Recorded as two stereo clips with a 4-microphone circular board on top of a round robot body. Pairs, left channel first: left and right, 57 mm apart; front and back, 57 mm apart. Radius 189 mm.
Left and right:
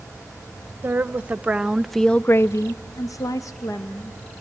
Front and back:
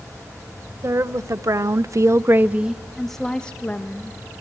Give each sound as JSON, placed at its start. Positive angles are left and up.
{"t": 0.8, "sound": "a woman speaking", "azimuth_deg": -150, "distance_m": 1.3}